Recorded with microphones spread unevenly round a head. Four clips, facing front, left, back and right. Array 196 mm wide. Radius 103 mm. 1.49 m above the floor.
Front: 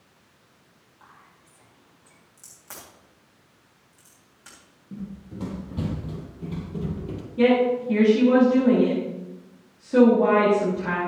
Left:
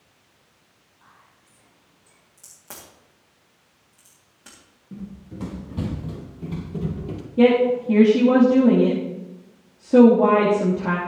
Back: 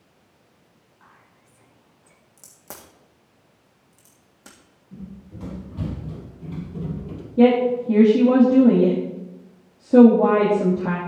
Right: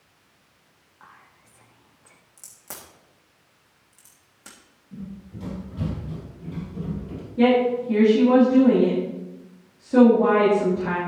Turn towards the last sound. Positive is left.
turn(degrees=145)